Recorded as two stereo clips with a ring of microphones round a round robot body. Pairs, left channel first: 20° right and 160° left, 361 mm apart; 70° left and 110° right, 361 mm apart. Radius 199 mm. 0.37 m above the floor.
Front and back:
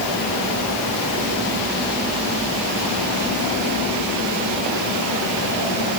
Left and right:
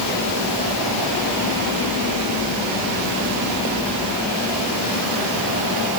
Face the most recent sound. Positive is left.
No sound to turn to.